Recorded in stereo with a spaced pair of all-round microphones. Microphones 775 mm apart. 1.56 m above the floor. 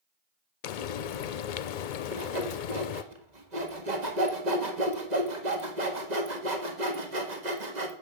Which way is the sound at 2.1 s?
60° right (ahead or behind).